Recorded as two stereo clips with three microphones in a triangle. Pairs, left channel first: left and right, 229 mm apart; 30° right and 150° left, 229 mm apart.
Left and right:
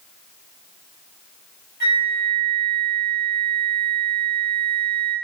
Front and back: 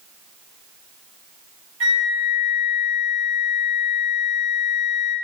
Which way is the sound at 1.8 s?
130° left.